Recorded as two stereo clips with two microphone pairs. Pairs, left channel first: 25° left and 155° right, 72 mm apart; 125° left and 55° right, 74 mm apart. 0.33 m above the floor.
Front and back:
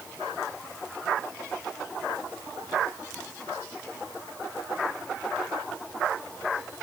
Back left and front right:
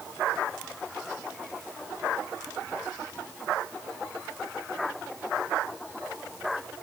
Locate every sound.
Only background noise.